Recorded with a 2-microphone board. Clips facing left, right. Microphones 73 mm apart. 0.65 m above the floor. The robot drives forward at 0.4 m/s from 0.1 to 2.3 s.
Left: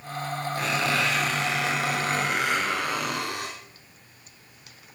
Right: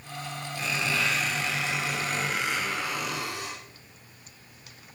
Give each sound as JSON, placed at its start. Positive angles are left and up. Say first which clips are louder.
{"t": 0.6, "sound": "a squeak", "louder": "left 3 dB", "side_deg": 55, "distance_m": 7.5}